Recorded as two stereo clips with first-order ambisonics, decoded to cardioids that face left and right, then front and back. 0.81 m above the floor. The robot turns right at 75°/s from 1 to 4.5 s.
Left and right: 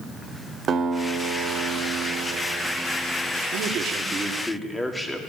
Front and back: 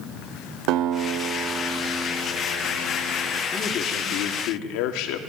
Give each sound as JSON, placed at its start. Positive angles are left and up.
{"t": 0.7, "sound": "a guitar", "azimuth_deg": -150, "distance_m": 0.8}
{"t": 3.5, "sound": "a man speaking", "azimuth_deg": -70, "distance_m": 1.8}